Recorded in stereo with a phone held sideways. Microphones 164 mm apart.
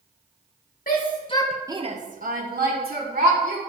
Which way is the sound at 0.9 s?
60° left (ahead or behind).